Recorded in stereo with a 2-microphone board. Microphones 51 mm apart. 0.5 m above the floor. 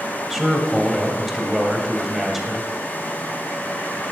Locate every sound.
0.3 s a man speaking: 5° right (ahead or behind), 2 m